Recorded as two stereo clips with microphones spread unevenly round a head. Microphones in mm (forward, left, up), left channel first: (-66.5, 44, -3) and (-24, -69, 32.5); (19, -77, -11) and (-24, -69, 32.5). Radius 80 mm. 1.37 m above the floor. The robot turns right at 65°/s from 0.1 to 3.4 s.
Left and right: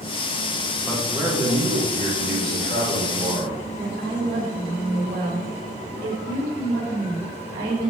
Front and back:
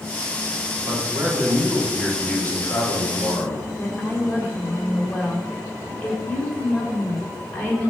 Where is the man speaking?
170° right, 3.5 m; by 3.6 s straight ahead, 3.5 m.